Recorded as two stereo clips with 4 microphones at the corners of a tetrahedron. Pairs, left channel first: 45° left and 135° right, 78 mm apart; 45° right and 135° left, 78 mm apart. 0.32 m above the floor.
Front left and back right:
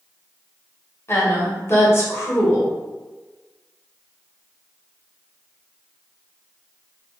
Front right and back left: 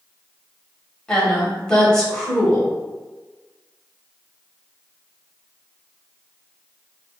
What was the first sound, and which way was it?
A woman speaking, 30° left.